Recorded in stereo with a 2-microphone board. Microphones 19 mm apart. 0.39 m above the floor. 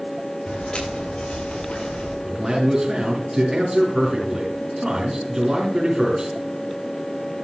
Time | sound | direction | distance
0.5 | footsteps | 85° left | 6.5 m
2.2 | a man speaking | 20° right (ahead or behind) | 4 m